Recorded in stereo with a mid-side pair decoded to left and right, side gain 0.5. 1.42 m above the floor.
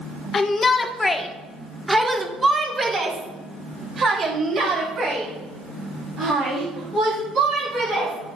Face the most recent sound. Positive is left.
turn(degrees=-60)